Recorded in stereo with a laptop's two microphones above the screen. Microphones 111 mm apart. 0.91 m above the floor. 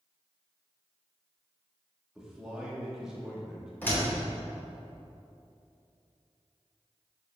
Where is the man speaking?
5° right (ahead or behind), 1.4 m.